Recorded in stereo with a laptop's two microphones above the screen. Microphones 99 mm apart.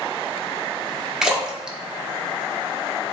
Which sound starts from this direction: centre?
A splash, at 1.2 s.